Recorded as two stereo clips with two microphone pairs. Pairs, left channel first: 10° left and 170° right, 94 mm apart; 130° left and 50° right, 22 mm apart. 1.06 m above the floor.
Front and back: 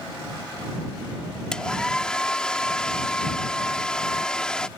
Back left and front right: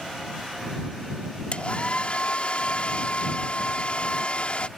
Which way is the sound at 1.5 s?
95° left.